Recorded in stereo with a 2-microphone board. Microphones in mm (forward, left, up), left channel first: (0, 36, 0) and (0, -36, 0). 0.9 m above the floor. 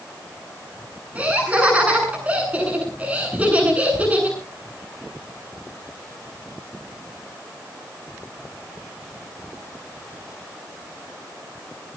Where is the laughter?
20° right (ahead or behind), 9 m.